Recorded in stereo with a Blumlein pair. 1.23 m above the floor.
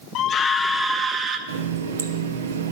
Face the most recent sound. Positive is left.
turn(degrees=-60)